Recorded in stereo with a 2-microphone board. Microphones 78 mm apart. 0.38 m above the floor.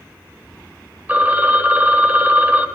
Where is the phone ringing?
25° right (ahead or behind), 1.0 m.